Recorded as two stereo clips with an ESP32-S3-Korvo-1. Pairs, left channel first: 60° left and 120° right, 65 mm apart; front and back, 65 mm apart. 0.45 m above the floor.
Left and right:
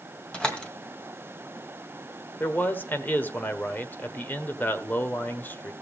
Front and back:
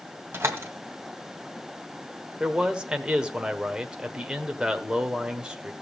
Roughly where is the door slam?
Behind left.